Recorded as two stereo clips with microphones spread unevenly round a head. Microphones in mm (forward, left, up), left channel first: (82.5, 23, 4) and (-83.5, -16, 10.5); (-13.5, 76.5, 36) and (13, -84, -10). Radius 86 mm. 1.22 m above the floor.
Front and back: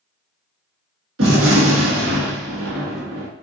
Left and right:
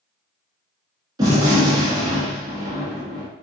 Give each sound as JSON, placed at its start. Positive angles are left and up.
{"t": 1.2, "sound": "a gunshot", "azimuth_deg": -150, "distance_m": 1.5}